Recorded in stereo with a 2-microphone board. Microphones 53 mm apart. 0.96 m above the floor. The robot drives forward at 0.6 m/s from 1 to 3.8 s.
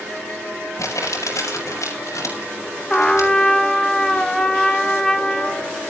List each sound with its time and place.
0.8 s crumpling: 85° left, 6.5 m; by 3.3 s 75° left (ahead or behind), 7 m
2.9 s a trumpet: 15° left (ahead or behind), 1.0 m; by 5.7 s 10° left (ahead or behind), 1.5 m